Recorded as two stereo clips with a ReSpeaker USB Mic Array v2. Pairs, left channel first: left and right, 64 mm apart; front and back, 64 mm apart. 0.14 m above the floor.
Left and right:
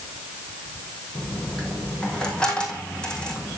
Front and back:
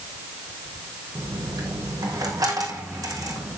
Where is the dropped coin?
165° left, 4 m.